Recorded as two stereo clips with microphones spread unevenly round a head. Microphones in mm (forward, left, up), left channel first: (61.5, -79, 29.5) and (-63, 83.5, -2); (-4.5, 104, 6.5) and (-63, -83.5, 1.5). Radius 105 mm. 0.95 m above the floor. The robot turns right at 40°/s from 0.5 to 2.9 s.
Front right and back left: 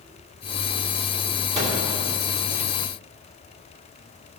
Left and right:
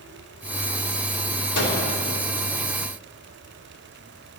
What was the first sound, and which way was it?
A microwave, 55° left.